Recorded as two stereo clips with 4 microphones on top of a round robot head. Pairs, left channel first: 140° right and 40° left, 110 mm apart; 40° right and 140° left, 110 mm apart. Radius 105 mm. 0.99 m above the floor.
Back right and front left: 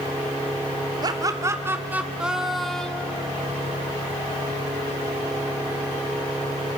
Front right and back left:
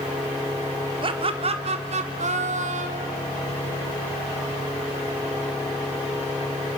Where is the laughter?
95° left, 2.5 m; by 3.2 s 140° left, 3 m.